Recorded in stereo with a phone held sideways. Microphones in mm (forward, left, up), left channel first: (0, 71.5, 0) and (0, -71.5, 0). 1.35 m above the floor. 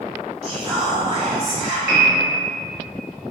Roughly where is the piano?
Left.